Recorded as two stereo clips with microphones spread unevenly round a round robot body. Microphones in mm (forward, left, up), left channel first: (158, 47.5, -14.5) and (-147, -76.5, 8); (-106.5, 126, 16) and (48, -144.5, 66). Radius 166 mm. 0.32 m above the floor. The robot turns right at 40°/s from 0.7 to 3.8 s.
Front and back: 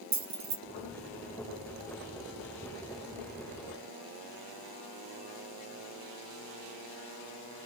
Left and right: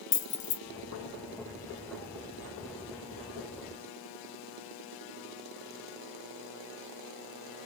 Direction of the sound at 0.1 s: 140° left.